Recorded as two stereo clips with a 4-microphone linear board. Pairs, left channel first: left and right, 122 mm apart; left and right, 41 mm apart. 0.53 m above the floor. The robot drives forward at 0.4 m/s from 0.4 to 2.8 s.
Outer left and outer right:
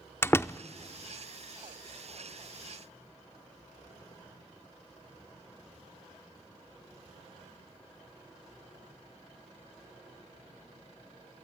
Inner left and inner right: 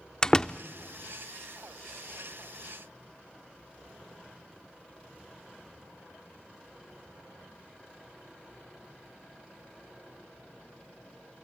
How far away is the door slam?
About 0.5 m.